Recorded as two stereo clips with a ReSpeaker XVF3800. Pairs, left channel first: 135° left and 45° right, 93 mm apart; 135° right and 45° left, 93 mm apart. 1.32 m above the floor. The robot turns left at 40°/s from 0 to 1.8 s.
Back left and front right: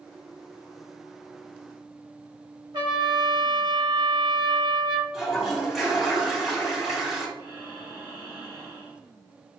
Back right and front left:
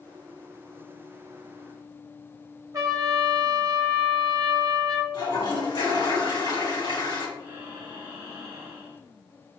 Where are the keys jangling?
I don't hear keys jangling.